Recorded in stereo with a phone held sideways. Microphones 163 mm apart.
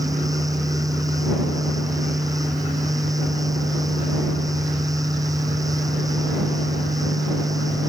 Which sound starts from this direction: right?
A fan, at 0.0 s.